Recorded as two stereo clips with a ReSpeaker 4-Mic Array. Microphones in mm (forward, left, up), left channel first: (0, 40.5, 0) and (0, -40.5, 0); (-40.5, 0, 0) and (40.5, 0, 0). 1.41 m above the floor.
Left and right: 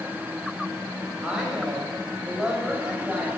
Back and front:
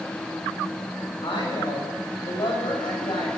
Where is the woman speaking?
170° right, 9 m.